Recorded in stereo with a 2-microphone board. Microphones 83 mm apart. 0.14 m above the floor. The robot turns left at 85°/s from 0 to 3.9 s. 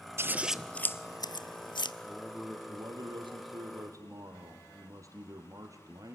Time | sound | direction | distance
0.2 | scissors | 35° right (ahead or behind) | 0.7 m
2.0 | a man speaking | 25° left | 3.5 m